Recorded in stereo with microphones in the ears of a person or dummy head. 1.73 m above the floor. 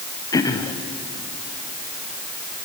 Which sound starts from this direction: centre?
Throat clearing, at 0.3 s.